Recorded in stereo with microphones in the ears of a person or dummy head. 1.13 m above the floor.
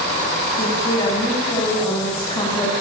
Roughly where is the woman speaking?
Left.